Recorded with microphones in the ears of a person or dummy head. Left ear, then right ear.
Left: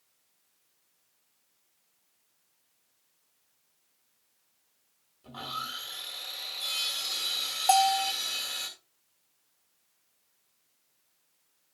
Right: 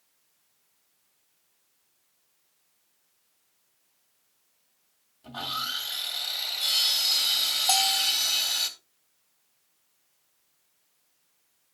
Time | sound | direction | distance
5.2 | sawing | centre (ahead or behind) | 1.9 m
7.7 | a bell | 15° left (ahead or behind) | 0.7 m